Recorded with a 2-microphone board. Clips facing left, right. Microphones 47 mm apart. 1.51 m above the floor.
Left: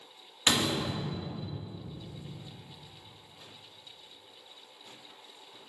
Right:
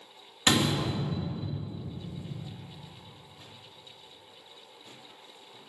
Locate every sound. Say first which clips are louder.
0.5 s a door slam: right 3 dB; 15° right (ahead or behind), 1.7 m